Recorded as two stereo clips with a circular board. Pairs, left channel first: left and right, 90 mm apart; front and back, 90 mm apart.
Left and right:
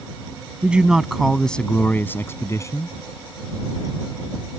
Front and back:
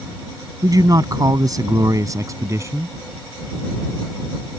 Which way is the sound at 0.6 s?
160° right.